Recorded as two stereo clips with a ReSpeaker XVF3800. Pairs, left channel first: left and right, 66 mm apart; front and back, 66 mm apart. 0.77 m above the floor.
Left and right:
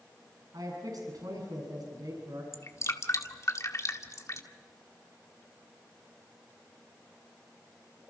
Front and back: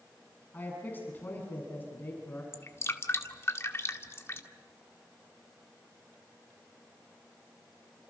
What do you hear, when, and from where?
0.5 s a man speaking: 65° right, 7.5 m
2.5 s dripping: 50° left, 1.8 m